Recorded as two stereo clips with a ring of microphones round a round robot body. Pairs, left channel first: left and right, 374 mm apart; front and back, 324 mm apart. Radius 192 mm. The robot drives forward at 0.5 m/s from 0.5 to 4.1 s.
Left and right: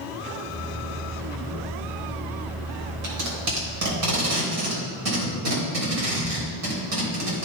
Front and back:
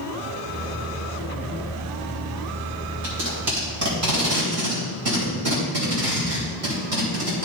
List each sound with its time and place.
3.0 s tape being pulled: 125° right, 3 m; by 7.5 s 135° right, 3.5 m